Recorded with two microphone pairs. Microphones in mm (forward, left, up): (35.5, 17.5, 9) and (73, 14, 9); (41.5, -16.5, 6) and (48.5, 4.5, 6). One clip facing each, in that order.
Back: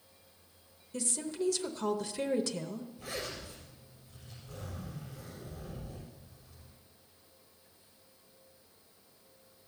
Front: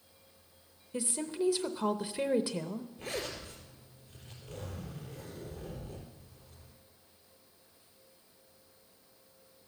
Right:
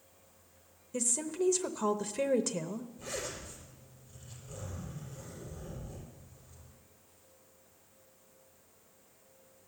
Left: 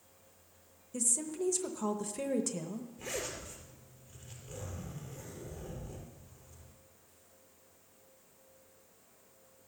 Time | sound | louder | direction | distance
0.9 | a woman speaking | front 2 dB, right 2 dB | 40° right | 0.7 m
3.0 | a zipper | front 2 dB, left 4 dB | 45° left | 4.5 m